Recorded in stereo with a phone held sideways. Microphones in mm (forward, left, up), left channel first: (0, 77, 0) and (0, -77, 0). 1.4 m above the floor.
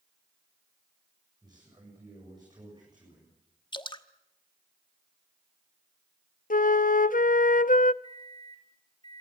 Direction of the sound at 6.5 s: 60° left (ahead or behind).